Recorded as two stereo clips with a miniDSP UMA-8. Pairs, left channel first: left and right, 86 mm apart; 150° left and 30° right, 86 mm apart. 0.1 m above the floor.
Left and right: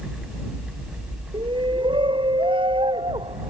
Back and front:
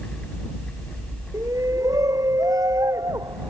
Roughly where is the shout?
Right.